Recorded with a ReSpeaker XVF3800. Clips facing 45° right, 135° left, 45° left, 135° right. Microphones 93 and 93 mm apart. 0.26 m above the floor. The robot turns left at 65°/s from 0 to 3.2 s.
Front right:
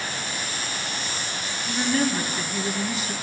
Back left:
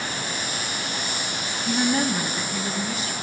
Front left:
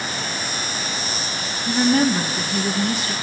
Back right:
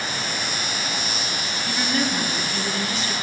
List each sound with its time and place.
1.7 s a woman speaking: 100° left, 1.7 m; by 3.1 s straight ahead, 1.7 m